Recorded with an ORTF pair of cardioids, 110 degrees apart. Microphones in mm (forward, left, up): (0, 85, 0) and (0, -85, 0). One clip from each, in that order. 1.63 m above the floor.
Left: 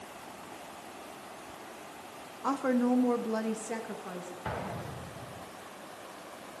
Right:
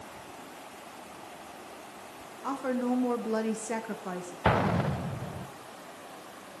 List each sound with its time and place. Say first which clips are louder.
2.4 s a woman speaking: left 2 dB; 20° left, 1.1 m; by 4.3 s 35° right, 1.2 m
4.5 s an explosion: right 12 dB; 60° right, 0.5 m